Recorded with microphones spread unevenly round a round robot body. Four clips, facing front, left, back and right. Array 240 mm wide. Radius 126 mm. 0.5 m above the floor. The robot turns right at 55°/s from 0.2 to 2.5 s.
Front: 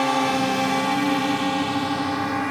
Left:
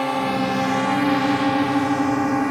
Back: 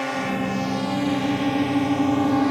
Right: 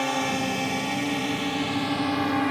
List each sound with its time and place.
0.0 s a drone: 30° left; by 2.5 s 160° left